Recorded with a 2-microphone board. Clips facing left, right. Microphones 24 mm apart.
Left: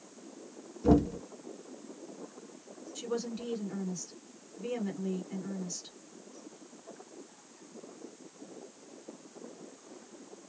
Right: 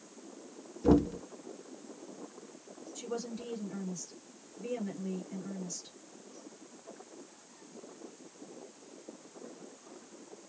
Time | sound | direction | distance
0.8 | knocking | 5° right (ahead or behind) | 0.7 m
3.0 | a woman speaking | 30° left (ahead or behind) | 1.6 m